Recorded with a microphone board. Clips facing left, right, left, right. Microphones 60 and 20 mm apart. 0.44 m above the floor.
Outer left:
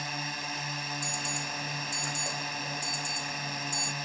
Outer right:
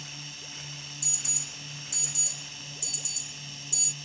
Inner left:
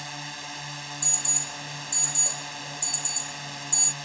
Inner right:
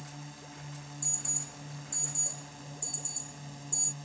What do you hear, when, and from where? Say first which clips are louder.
0.0 s a drone: outer left 10 dB, inner left 11 dB; 65° left (ahead or behind)
1.0 s an alarm: outer left 9 dB, inner left 8 dB; 50° left (ahead or behind)